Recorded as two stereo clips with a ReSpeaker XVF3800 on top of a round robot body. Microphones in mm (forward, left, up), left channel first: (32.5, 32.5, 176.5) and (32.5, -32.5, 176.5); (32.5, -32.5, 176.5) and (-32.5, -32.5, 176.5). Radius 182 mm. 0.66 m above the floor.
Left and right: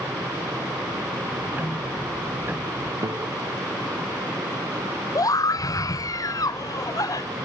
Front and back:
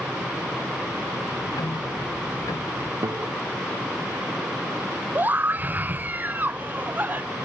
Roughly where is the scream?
Behind left.